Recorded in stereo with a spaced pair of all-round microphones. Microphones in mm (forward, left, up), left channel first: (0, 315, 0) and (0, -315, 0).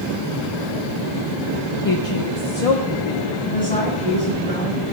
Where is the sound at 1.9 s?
30° left (ahead or behind), 0.8 m; by 3.3 s 70° left (ahead or behind), 2 m.